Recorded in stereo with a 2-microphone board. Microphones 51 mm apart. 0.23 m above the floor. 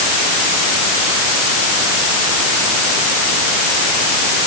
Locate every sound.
Only background noise.